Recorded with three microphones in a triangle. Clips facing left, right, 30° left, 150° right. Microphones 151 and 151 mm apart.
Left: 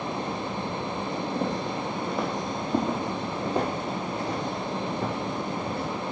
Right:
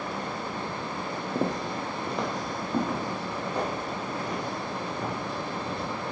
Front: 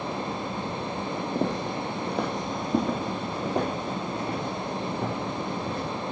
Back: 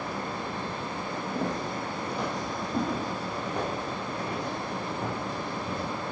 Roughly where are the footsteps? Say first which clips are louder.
Right 3 dB, front 3 dB; ahead right.